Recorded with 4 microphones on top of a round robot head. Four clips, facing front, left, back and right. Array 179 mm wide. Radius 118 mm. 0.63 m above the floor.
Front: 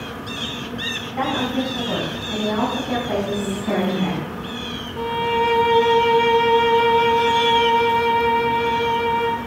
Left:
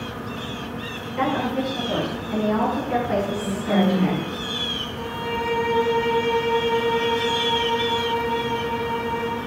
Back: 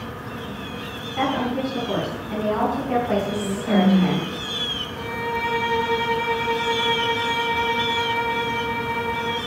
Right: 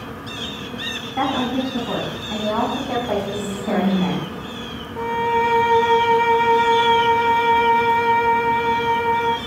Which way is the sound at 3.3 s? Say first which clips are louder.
Even, back 1 dB; 130° right.